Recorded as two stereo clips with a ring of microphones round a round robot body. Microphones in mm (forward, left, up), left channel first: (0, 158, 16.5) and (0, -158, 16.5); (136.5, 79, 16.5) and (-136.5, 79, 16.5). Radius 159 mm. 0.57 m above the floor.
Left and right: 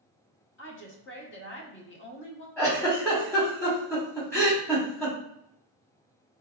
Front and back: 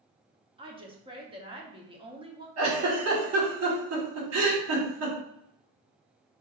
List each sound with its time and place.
0.6 s a woman speaking: 120° left, 0.9 m
2.6 s a giggle: 170° left, 1.5 m